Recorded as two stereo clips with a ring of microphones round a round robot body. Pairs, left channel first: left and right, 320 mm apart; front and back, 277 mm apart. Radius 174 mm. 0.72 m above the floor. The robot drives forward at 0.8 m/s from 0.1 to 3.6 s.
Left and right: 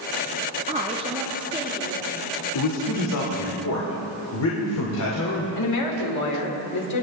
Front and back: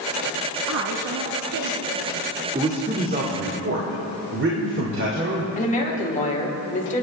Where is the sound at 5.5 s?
60° left, 3 m.